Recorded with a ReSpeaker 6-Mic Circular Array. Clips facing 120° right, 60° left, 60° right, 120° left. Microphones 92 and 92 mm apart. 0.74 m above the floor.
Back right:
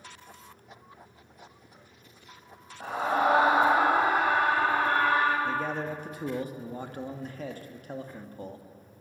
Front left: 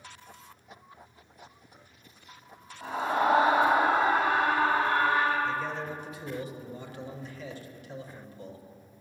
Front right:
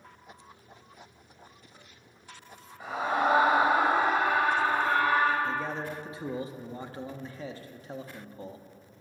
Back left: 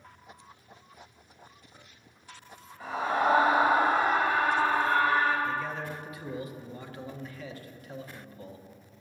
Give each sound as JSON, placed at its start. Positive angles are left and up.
{"t": 2.8, "sound": "a scream", "azimuth_deg": -135, "distance_m": 4.5}
{"t": 5.5, "sound": "a man speaking", "azimuth_deg": -110, "distance_m": 1.0}